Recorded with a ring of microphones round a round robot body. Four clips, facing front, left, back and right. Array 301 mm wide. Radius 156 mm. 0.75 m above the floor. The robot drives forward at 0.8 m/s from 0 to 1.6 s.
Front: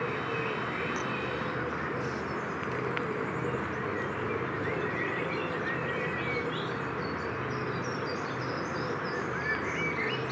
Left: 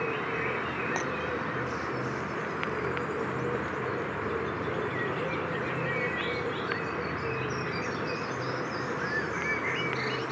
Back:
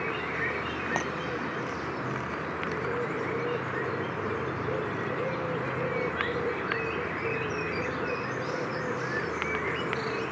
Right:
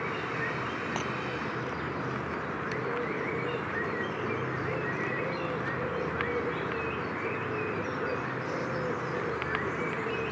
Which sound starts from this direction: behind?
Breaking glass, at 1.0 s.